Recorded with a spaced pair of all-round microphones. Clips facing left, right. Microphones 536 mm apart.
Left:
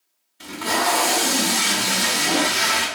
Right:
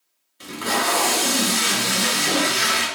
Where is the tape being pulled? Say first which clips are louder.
Left 1 dB; 15° left (ahead or behind), 0.9 m.